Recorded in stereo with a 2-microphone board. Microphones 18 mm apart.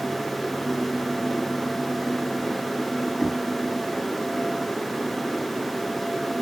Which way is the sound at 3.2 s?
15° right (ahead or behind).